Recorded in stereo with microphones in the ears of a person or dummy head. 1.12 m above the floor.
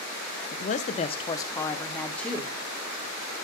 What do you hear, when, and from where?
0.5 s a man speaking: 40° left (ahead or behind), 0.7 m; by 2.5 s centre (ahead or behind), 1.2 m